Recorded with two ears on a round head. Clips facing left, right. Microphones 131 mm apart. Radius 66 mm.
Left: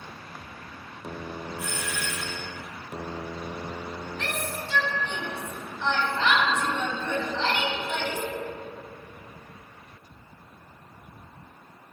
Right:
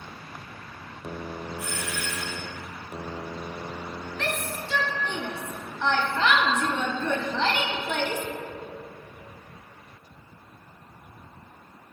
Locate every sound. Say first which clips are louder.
1.6 s a doorbell: even; 55° left (ahead or behind), 3 m
4.2 s a shout: right 3 dB; 45° right (ahead or behind), 1.0 m